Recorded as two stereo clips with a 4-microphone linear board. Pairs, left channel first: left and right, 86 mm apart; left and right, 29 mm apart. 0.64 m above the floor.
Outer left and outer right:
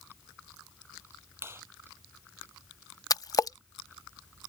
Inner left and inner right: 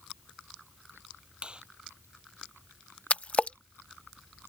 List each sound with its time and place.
1.4 s a clap: 30° right (ahead or behind)
3.1 s a splash: 45° left (ahead or behind)